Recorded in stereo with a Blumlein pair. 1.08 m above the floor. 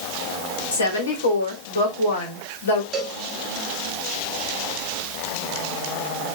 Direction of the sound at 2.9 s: 25° right.